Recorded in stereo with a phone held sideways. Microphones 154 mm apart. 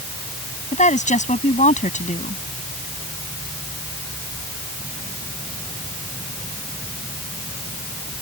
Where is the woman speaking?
55° left (ahead or behind).